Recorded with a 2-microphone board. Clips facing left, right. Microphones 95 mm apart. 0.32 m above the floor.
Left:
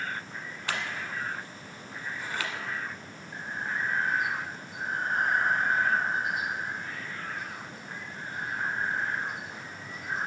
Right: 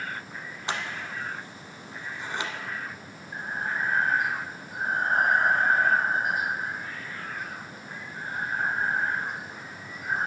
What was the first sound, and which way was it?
Scissors, 25° right (ahead or behind).